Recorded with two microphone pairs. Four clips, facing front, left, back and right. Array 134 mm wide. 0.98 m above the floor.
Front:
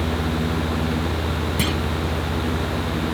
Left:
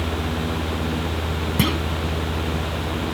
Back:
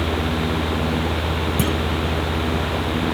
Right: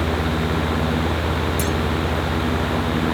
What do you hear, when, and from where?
1.6 s a clunk: 80° left